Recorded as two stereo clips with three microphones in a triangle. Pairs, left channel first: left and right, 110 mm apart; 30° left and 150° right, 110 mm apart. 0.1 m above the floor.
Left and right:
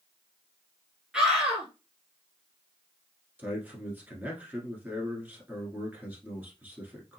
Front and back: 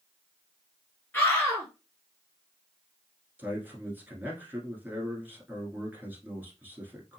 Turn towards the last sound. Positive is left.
turn(degrees=-120)